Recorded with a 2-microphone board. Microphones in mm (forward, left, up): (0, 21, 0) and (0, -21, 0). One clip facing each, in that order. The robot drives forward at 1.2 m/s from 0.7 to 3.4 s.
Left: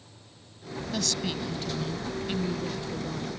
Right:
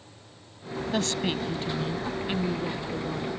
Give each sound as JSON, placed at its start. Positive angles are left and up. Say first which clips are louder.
{"t": 0.9, "sound": "a woman speaking", "louder": "right 4 dB", "side_deg": -35}